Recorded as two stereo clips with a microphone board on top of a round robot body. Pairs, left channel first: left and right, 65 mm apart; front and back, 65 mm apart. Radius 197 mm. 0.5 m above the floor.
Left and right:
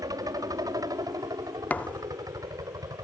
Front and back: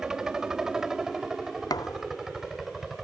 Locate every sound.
0.0 s a helicopter: 100° right; by 3.0 s 95° right
1.7 s a thud: 20° left